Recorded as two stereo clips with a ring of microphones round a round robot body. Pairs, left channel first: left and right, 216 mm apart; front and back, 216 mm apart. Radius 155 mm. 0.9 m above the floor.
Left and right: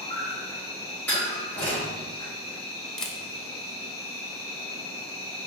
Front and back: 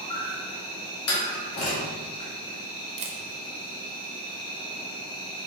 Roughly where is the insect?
Ahead left.